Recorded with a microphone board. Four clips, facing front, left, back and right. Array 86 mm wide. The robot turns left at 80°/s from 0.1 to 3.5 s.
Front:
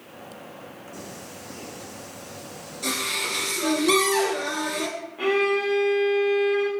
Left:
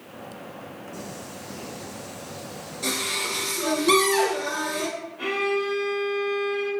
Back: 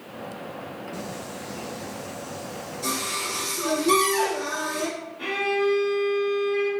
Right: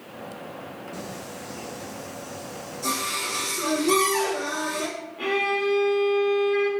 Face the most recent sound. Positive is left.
turn(degrees=-15)